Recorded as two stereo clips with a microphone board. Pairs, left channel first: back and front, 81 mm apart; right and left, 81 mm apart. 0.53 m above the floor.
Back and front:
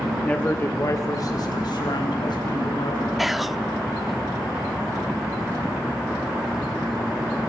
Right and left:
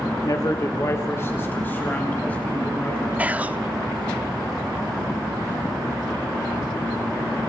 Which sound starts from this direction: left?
Whispering, at 3.2 s.